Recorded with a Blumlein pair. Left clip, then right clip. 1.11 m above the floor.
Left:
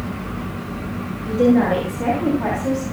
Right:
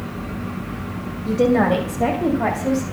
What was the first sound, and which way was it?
A woman speaking, 15° right.